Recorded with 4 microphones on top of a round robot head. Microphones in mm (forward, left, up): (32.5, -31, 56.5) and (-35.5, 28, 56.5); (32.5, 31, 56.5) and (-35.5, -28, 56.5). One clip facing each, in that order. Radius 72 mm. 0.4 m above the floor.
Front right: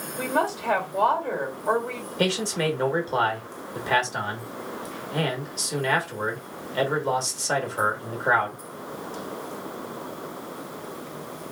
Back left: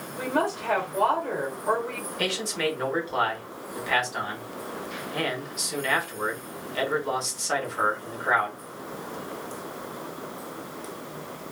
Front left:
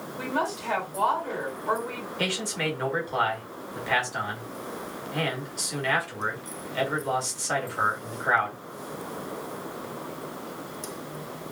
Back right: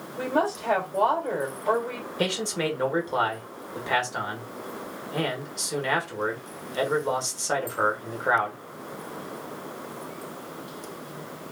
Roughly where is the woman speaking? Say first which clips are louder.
Front right 1 dB, back right 4 dB; behind right.